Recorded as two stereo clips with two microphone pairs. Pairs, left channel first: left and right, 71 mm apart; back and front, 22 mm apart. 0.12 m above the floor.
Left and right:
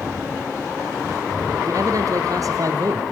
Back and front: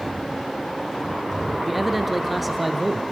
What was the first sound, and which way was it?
A man speaking, 85° right.